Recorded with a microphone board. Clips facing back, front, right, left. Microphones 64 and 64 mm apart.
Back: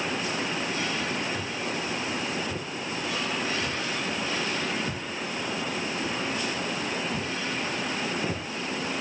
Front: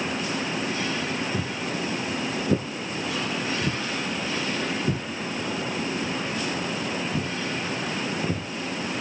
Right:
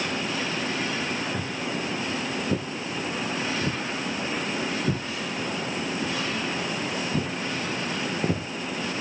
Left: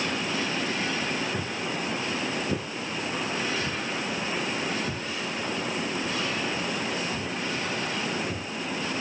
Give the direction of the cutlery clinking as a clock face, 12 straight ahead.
No cutlery clinking in this recording.